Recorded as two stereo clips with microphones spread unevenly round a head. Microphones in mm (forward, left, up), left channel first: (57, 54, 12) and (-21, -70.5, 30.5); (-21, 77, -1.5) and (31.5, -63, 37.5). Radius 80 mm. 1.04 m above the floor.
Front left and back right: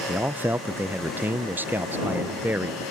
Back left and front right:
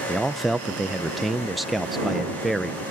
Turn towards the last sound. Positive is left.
turn(degrees=160)